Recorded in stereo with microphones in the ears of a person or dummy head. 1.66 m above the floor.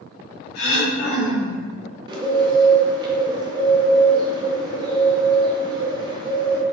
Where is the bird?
35° right (ahead or behind), 0.7 m.